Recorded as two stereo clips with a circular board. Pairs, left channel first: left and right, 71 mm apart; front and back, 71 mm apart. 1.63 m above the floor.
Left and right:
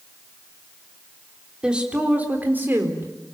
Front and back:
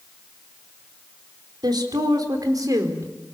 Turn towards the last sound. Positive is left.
turn(degrees=-145)